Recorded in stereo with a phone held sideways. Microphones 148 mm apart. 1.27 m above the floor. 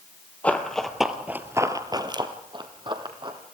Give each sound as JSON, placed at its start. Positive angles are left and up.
{"t": 0.4, "sound": "running footsteps", "side_deg": 10, "distance_m": 1.8}